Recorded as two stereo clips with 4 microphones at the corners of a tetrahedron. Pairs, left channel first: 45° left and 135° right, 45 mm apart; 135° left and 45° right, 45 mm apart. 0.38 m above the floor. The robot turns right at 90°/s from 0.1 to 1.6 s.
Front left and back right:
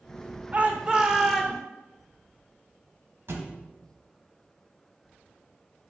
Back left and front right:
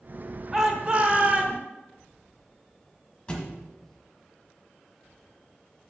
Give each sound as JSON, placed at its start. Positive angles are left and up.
{"t": 0.5, "sound": "a shout", "azimuth_deg": -120, "distance_m": 1.1}
{"t": 3.3, "sound": "a thud", "azimuth_deg": -160, "distance_m": 1.2}